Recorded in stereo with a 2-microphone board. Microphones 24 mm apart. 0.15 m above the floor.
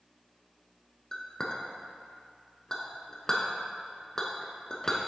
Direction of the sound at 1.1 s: 25° left (ahead or behind).